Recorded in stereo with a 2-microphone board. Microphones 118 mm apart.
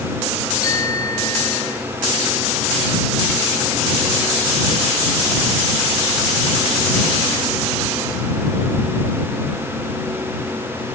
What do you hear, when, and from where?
0.6 s a bicycle bell: 30° left (ahead or behind)